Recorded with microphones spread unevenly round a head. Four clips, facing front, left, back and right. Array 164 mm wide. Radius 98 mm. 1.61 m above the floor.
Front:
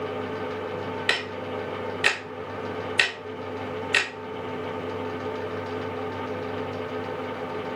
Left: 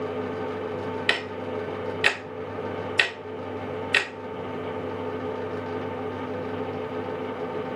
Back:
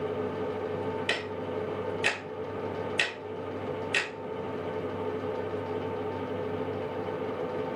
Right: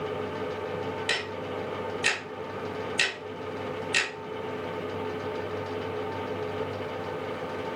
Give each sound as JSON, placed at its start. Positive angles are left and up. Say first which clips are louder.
{"t": 1.1, "sound": "ticking", "louder": "left 3 dB, front 2 dB", "azimuth_deg": 50, "distance_m": 2.0}